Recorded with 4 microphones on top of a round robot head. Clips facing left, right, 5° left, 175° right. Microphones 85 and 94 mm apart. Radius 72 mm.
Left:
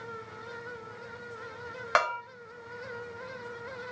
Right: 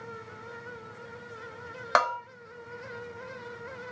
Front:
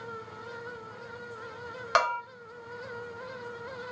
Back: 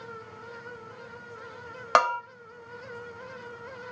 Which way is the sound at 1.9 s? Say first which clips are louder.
Right 2 dB, back 4 dB; 155° right.